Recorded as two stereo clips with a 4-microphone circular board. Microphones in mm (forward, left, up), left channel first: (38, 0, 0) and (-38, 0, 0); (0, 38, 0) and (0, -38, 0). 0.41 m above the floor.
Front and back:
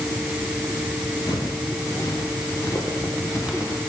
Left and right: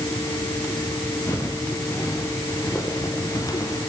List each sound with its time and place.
1.3 s footsteps: 35° left, 7.5 m; by 3.8 s 50° left, 7.5 m